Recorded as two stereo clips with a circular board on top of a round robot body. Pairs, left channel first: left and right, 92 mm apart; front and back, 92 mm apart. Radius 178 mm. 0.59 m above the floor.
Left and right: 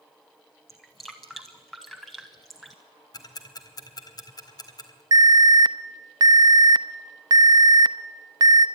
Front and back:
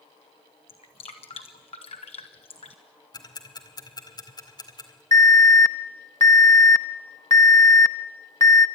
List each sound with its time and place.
0.7 s dripping: straight ahead, 0.6 m
3.1 s ticking: 45° left, 2 m
5.1 s an alarm: 50° right, 0.9 m